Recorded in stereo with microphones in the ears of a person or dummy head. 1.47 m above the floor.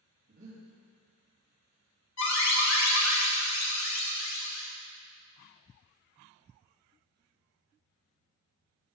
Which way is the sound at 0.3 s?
40° right (ahead or behind).